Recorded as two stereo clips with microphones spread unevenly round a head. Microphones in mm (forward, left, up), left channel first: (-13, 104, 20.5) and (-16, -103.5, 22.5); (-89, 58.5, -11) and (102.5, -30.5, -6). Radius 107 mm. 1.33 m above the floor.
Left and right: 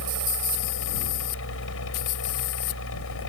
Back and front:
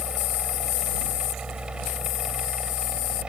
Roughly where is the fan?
Ahead left.